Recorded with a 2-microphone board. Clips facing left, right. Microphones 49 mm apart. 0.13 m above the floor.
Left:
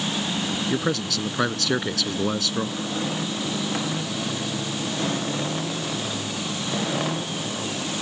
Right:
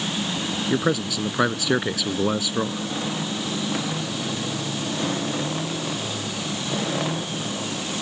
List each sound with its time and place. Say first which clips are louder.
0.7 s a man speaking: right 5 dB; 10° right (ahead or behind)